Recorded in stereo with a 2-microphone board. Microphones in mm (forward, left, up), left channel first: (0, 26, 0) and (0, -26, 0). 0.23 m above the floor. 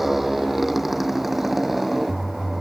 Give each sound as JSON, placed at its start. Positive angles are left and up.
{"t": 0.0, "sound": "a motorcycle", "side_deg": -5}